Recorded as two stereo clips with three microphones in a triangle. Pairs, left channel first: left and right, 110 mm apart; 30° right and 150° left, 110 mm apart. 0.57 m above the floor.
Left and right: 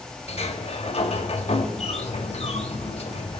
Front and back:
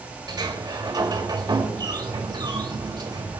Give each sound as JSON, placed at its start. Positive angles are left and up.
{"t": 0.3, "sound": "a sliding door", "azimuth_deg": 105, "distance_m": 1.8}